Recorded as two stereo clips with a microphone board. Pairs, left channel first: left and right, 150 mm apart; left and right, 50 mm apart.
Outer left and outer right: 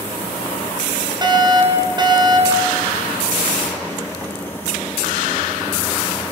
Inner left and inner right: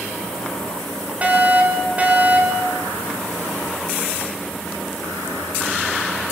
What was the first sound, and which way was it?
A fire alarm, 30° right (ahead or behind).